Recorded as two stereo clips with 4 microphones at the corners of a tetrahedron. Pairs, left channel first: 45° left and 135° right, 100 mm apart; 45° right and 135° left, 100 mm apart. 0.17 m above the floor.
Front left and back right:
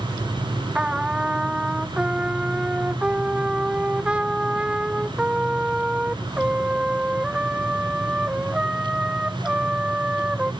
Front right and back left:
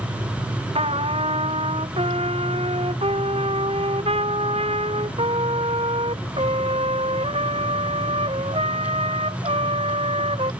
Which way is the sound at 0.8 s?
145° left.